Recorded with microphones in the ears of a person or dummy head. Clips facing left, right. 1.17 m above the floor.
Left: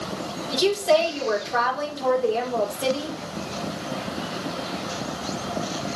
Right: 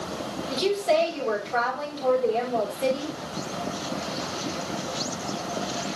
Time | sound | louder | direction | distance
0.5 | a woman speaking | left 3 dB | 10° left (ahead or behind) | 3 m